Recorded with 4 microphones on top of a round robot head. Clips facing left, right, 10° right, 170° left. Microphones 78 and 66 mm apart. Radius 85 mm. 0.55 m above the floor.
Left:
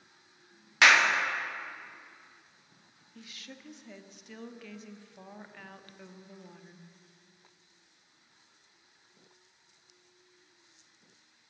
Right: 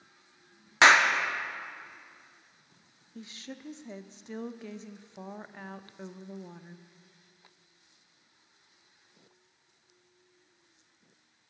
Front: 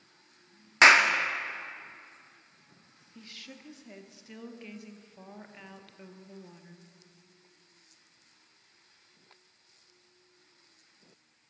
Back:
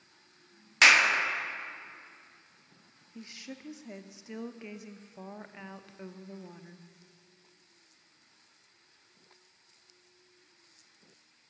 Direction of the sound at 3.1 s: 130° right.